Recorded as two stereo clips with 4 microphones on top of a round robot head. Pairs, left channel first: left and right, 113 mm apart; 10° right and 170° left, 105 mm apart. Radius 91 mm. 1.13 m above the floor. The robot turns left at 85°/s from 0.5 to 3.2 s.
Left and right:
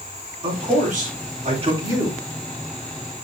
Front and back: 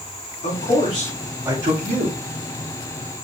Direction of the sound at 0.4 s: 35° right.